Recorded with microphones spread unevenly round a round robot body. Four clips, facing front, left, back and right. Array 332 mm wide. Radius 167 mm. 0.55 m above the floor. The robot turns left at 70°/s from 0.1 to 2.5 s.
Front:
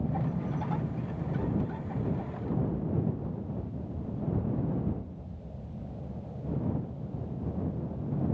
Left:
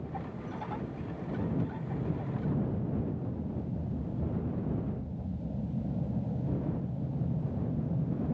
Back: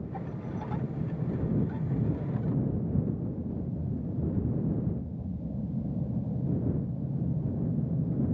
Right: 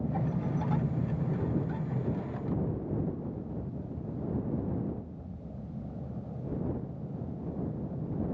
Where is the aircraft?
40° right; by 8.3 s 150° left.